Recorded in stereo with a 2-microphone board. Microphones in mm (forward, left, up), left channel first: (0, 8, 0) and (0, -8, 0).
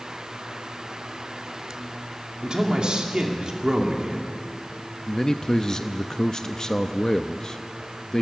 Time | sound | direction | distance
2.4 | a man speaking | 60° right (ahead or behind) | 2.5 m
5.1 | a man speaking | 30° left (ahead or behind) | 0.7 m